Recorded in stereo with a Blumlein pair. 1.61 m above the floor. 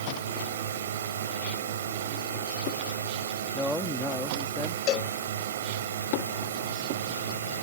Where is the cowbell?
35° left.